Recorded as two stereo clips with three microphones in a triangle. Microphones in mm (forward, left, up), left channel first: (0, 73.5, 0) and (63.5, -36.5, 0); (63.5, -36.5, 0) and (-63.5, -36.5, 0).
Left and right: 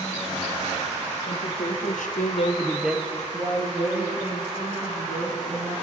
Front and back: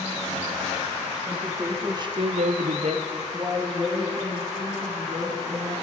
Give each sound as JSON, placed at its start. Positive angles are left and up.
{"t": 1.3, "sound": "a woman speaking", "azimuth_deg": 110, "distance_m": 2.0}